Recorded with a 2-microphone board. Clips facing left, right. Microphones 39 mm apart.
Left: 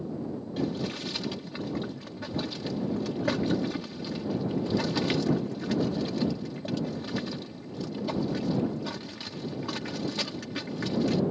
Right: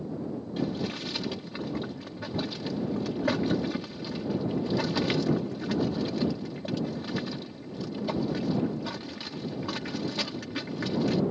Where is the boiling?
5° right (ahead or behind).